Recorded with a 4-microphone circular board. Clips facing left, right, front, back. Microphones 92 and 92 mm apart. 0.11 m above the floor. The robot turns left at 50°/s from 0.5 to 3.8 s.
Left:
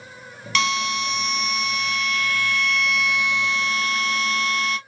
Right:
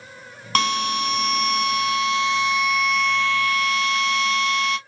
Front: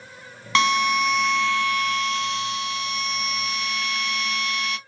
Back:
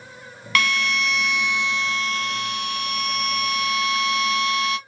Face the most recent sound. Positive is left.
turn(degrees=135)